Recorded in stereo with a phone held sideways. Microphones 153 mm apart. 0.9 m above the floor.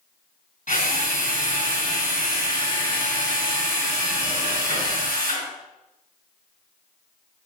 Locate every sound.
0.7 s a drill: 60° left (ahead or behind), 3 m